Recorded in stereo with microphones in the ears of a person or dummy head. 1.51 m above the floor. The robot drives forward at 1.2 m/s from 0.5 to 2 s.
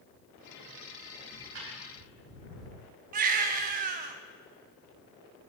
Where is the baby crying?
45° right (ahead or behind), 0.7 m.